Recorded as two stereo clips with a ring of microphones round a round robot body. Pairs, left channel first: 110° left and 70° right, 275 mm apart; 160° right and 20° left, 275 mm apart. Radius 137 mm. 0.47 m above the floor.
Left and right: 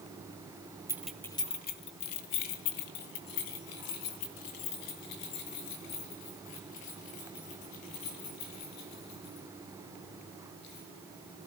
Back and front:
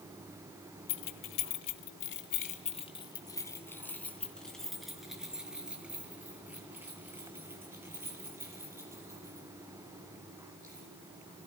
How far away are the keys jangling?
About 1.4 m.